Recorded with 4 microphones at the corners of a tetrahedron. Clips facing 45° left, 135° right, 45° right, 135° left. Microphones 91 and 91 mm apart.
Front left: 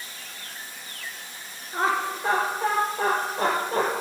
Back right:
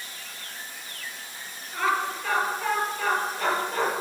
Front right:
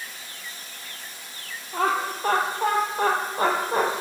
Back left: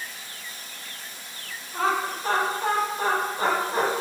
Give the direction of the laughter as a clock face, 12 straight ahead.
12 o'clock.